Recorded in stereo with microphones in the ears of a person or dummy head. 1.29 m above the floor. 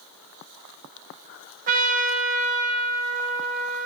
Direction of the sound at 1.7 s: 45° right (ahead or behind).